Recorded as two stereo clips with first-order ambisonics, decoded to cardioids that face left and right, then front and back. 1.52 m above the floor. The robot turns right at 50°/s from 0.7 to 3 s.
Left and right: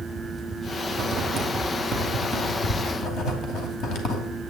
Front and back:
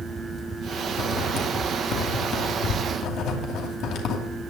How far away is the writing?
About 2 m.